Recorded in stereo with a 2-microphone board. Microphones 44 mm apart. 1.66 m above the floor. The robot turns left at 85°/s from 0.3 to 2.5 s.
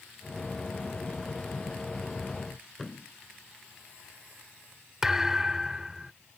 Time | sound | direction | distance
2.8 | a thud | 5° left (ahead or behind) | ?
5.0 | a thud | 10° right (ahead or behind) | ?